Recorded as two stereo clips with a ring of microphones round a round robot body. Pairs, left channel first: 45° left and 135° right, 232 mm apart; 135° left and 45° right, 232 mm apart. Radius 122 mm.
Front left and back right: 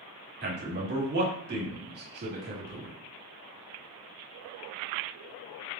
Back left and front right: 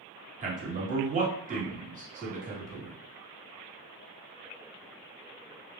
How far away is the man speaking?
About 1.6 m.